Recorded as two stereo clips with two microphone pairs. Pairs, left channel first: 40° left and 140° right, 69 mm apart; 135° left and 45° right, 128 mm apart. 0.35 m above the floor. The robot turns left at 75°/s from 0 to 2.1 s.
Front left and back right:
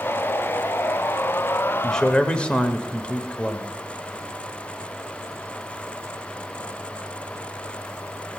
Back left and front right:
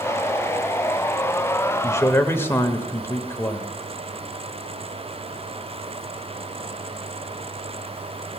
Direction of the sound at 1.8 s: 110° left.